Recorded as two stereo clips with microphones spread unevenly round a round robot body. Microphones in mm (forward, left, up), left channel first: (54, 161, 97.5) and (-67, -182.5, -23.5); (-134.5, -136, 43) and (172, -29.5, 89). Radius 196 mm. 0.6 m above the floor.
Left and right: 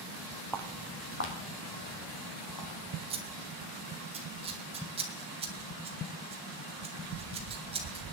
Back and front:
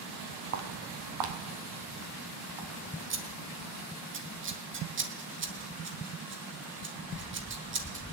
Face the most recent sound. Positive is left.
turn(degrees=-35)